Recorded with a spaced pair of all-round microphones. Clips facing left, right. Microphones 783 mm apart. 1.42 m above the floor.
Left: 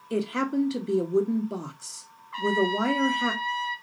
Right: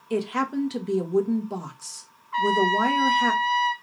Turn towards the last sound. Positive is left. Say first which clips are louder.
# right 1 dB
turn(degrees=-5)  # may be behind; listen again after turning